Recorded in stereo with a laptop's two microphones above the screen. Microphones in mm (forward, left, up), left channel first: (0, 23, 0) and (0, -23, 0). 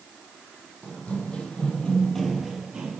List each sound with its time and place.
0.8 s running footsteps: 30° left (ahead or behind), 2 m; by 3.0 s 25° right (ahead or behind), 1.2 m